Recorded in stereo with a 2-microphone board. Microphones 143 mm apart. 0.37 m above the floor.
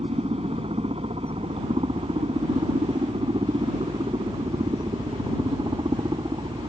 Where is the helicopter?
45° right (ahead or behind); by 6.7 s 35° right (ahead or behind).